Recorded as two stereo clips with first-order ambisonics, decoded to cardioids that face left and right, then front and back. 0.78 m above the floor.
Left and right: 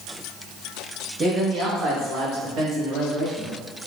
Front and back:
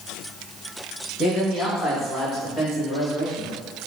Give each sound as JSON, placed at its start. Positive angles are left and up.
{"t": 1.2, "sound": "a man speaking", "azimuth_deg": -40, "distance_m": 0.8}